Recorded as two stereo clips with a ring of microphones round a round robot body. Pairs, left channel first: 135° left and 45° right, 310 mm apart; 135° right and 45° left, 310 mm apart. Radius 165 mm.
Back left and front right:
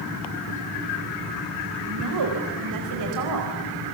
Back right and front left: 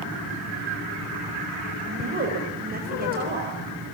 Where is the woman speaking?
15° right, 4.5 m.